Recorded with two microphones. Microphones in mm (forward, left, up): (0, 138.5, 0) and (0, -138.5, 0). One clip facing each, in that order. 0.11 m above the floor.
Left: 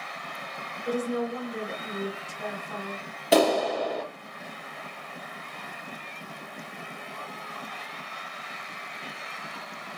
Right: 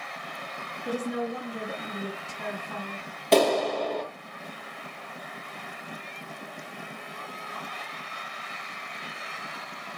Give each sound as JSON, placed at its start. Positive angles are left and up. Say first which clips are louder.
{"t": 0.8, "sound": "a woman speaking", "louder": "left 2 dB", "side_deg": 0, "distance_m": 1.9}
{"t": 3.3, "sound": "a clap", "louder": "even", "side_deg": 5, "distance_m": 1.0}